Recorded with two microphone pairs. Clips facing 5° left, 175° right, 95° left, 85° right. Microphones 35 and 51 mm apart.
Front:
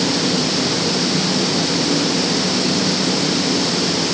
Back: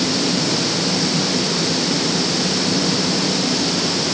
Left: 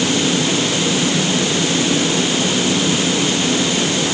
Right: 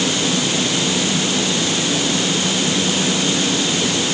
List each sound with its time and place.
Only background noise.